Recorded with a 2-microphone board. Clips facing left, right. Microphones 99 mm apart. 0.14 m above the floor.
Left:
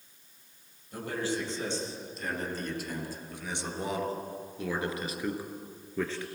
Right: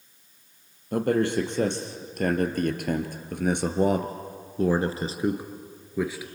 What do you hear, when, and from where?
0.9 s a man speaking: 60° right (ahead or behind), 3.5 m; by 6.2 s 5° right (ahead or behind), 1.9 m